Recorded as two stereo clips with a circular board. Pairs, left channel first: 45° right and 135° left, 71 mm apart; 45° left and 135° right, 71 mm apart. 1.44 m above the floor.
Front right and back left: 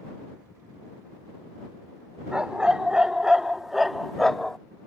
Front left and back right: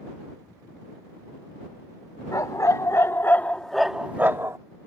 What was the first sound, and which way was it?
A dog barking, 60° left.